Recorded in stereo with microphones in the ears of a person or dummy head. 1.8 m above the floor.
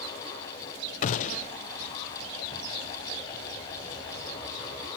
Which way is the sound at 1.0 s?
40° left (ahead or behind).